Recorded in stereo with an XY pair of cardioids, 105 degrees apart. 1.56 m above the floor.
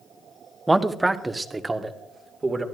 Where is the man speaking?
10° right, 1.0 m; by 2.6 s 25° right, 2 m.